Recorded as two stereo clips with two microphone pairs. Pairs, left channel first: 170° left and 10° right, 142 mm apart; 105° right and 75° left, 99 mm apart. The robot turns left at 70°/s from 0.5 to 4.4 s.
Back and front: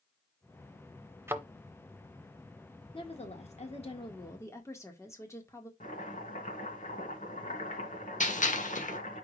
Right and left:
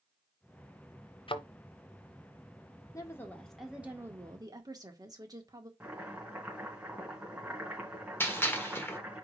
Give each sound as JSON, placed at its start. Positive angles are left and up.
{"t": 1.3, "sound": "a thud", "azimuth_deg": -80, "distance_m": 0.7}
{"t": 2.9, "sound": "a woman speaking", "azimuth_deg": -150, "distance_m": 1.7}
{"t": 5.8, "sound": "chopping", "azimuth_deg": 150, "distance_m": 2.5}
{"t": 8.2, "sound": "a gunshot", "azimuth_deg": -170, "distance_m": 1.2}